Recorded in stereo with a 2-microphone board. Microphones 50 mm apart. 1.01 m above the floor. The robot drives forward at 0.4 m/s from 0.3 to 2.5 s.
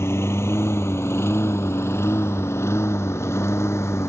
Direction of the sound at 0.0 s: 65° left (ahead or behind).